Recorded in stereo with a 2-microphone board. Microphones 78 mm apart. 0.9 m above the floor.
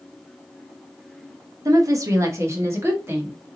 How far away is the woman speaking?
About 0.9 m.